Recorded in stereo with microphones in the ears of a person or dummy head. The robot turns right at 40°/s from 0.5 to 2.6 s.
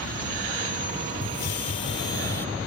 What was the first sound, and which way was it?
A hiss, 115° left.